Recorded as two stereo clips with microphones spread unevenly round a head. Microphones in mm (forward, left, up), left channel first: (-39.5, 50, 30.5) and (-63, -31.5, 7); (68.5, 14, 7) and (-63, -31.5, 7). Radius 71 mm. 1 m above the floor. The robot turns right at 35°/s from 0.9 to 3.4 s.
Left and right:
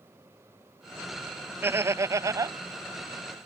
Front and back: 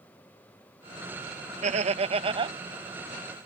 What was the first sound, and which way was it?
Laughter, 145° right.